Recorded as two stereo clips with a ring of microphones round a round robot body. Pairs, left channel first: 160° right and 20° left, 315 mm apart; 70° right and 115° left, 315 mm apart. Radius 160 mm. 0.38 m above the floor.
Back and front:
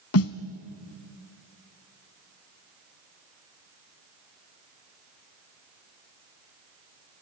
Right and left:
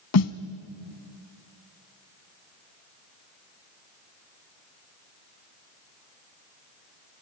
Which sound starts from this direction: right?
A snare drum, at 0.1 s.